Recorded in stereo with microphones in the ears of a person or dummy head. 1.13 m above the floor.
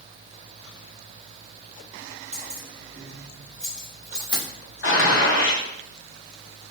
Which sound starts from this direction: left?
A gunshot, at 4.8 s.